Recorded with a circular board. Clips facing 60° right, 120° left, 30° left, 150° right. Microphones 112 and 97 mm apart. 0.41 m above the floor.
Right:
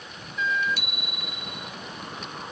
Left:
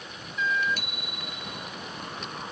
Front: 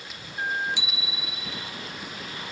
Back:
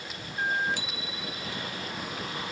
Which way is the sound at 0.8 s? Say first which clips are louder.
Right 1 dB, even; 165° left.